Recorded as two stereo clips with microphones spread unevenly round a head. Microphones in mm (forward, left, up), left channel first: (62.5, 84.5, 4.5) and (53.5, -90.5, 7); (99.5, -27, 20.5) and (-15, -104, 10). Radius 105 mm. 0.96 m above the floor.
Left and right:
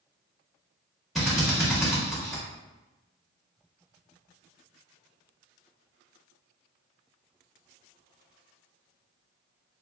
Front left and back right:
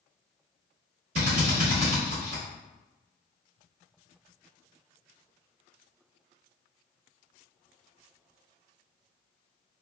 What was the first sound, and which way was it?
A drill, straight behind.